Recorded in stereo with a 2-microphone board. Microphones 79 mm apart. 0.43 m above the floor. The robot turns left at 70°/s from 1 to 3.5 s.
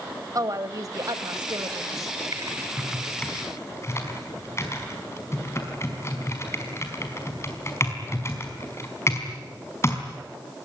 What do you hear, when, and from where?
0.3 s a woman speaking: 55° right, 1.8 m; by 2.1 s 135° right, 1.8 m
2.3 s typing on a keyboard: 45° right (ahead or behind), 4.5 m; by 10.0 s 35° left (ahead or behind), 4.5 m